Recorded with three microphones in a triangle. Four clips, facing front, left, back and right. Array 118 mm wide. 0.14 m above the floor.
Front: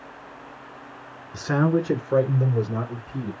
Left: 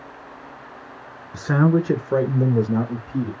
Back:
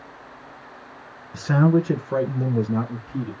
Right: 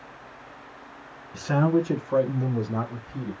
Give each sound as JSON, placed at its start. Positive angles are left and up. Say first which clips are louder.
{"t": 1.3, "sound": "a man speaking", "louder": "left 3 dB, back 3 dB", "azimuth_deg": 85, "distance_m": 1.2}